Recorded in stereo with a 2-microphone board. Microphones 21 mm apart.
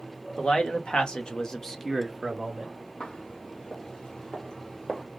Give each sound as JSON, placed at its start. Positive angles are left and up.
{"t": 0.4, "sound": "a man speaking", "side_deg": 55, "distance_m": 1.5}
{"t": 3.0, "sound": "footsteps", "side_deg": 55, "distance_m": 1.9}